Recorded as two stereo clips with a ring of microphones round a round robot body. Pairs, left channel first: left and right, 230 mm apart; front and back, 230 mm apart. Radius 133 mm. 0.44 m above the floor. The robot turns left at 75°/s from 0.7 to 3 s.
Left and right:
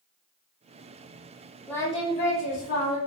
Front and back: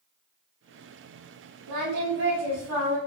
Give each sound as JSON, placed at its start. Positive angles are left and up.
{"t": 1.7, "sound": "singing", "azimuth_deg": 175, "distance_m": 5.5}